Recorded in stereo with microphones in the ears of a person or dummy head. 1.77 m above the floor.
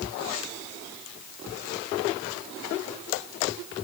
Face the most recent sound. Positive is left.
No sound to turn to.